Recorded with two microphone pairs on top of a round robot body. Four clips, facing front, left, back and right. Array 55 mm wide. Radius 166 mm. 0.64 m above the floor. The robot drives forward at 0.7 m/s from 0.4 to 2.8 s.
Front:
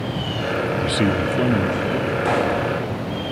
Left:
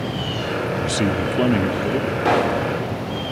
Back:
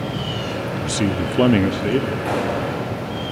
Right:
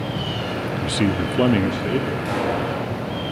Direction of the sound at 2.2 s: 75° left.